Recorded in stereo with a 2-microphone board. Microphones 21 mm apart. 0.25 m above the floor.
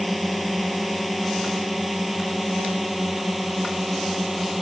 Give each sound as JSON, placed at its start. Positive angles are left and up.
{"t": 0.0, "sound": "a drone", "side_deg": 5}